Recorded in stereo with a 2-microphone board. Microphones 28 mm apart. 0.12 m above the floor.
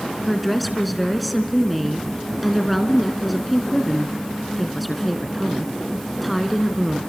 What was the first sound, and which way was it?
A woman speaking, centre (ahead or behind).